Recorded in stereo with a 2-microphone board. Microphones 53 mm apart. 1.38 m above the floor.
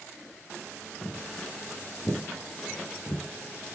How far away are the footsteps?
About 4 m.